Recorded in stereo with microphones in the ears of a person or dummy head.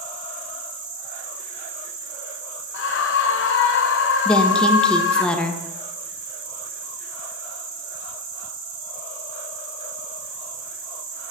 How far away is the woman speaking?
About 0.6 m.